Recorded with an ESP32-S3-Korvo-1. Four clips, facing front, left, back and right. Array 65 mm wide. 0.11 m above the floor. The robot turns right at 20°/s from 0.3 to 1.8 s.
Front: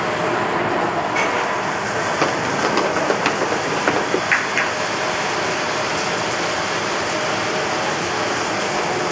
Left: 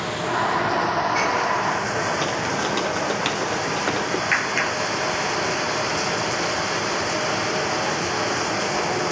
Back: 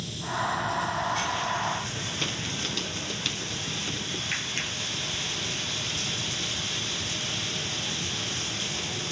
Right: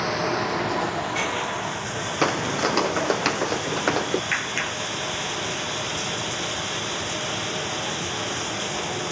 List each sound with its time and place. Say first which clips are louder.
0.0 s running water: left 1 dB, front 12 dB; 5° right; by 9.1 s 25° left
2.2 s footsteps: right 1 dB, front 15 dB; 30° right; by 4.2 s 10° right
4.3 s a clap: left 5 dB, front 15 dB; 20° left